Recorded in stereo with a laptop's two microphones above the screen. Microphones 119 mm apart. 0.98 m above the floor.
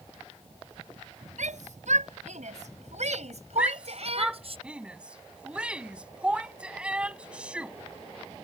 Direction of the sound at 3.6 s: 10° right (ahead or behind).